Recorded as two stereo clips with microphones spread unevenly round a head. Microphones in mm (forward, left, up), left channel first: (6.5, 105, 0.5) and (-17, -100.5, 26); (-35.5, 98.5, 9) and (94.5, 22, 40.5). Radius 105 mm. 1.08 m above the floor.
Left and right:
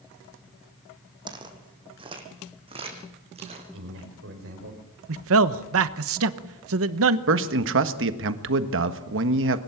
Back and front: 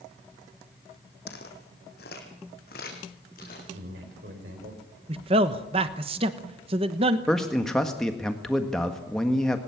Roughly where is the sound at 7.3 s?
Behind right.